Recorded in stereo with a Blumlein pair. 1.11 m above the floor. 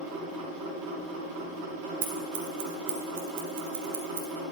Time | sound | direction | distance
0.0 | a machine running | 40° right | 3.5 m
2.0 | scissors | 50° right | 1.3 m